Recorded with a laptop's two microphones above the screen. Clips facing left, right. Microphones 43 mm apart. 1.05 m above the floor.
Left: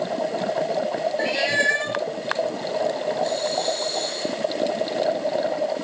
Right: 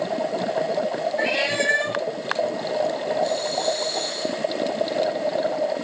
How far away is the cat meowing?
About 1.0 m.